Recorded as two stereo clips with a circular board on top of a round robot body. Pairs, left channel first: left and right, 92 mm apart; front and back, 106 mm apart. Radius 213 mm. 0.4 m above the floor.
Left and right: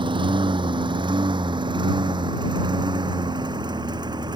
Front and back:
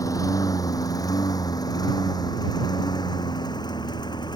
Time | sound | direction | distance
0.0 | a lawn mower | 60° right | ?